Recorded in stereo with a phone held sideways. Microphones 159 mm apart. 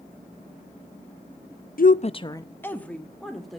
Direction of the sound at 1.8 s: 65° left (ahead or behind).